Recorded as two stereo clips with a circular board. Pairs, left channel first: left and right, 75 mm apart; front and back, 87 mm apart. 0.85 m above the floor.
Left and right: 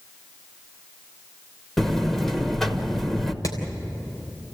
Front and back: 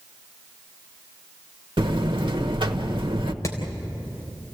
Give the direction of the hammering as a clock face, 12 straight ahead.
10 o'clock.